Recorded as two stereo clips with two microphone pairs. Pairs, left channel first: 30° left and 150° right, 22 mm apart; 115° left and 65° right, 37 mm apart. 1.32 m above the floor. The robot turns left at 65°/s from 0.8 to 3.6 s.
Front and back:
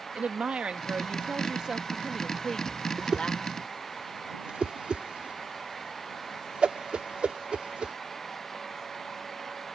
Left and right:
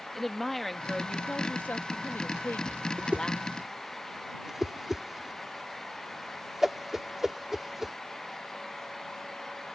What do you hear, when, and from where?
0.1 s a woman speaking: 160° right; by 3.5 s 30° left
3.0 s a whoosh: 100° right; by 8.0 s 145° right